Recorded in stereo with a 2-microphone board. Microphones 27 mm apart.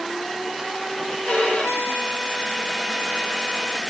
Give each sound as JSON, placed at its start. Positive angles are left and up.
{"t": 1.2, "sound": "a violin", "side_deg": 80, "distance_m": 1.3}